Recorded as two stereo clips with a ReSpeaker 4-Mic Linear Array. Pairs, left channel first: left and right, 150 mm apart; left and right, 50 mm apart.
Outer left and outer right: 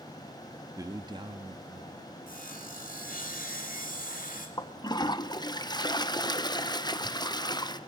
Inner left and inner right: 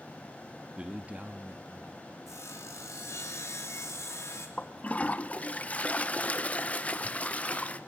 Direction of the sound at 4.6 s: 30° left (ahead or behind).